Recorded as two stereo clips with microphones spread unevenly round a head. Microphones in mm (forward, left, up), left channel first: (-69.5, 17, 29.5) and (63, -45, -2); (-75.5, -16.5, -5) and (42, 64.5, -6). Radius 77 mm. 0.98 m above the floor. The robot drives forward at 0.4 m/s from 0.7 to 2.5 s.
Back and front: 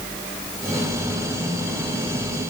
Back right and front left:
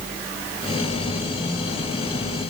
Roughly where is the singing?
I don't hear singing.